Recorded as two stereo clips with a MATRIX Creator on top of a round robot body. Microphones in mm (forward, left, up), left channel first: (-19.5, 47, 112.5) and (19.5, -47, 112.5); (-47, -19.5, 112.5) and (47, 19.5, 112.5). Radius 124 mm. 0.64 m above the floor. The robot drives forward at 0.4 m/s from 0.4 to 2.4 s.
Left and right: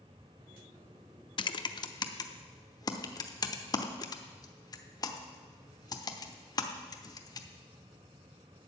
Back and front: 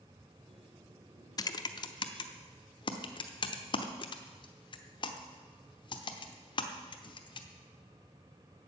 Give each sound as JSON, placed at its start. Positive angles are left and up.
{"t": 1.4, "sound": "typing on a keyboard", "azimuth_deg": 150, "distance_m": 0.6}